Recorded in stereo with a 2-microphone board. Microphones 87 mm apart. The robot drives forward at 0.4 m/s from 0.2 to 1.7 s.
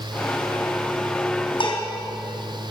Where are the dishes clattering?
70° left (ahead or behind), 3.5 m.